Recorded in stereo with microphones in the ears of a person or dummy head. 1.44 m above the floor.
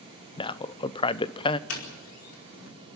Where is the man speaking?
20° left (ahead or behind), 0.7 m.